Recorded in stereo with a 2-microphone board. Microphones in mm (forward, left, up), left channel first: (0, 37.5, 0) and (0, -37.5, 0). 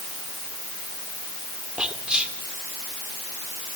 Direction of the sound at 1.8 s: 15° right (ahead or behind).